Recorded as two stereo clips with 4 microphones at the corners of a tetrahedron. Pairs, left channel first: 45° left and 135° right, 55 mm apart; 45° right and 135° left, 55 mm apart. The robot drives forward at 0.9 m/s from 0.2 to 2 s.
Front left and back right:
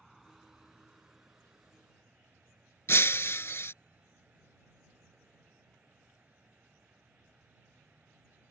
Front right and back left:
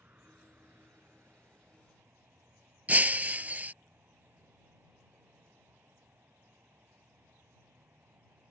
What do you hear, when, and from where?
0.0 s an insect: 145° left; by 8.5 s 165° left
2.9 s breaking glass: 80° left